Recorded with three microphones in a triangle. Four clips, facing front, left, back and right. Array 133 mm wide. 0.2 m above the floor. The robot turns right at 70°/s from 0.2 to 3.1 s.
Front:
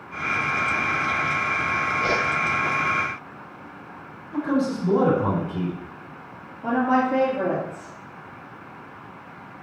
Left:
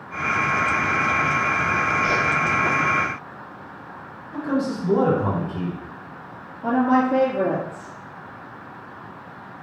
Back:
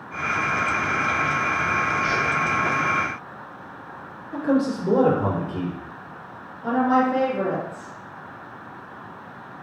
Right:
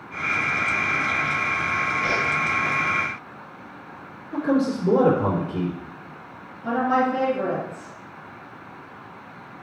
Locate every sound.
2.0 s a whoosh: 10° right, 2 m; by 2.2 s 5° left, 2 m
4.3 s a man speaking: 115° right, 3 m
6.6 s a woman speaking: 75° left, 3 m